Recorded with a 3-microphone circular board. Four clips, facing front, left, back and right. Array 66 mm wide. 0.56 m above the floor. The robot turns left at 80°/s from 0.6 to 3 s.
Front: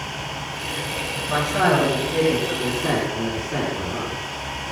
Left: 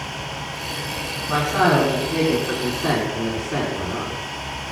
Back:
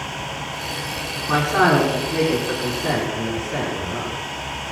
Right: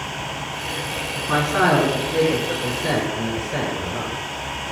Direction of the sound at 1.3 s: 175° right.